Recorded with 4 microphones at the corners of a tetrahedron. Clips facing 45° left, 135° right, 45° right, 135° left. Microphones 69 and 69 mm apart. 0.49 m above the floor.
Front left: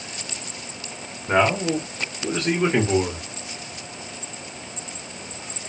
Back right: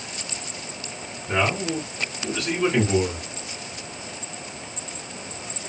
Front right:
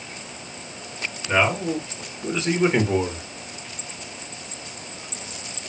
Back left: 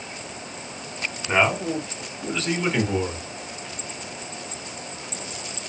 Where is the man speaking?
65° left, 1.2 m; by 3.2 s 20° right, 1.1 m.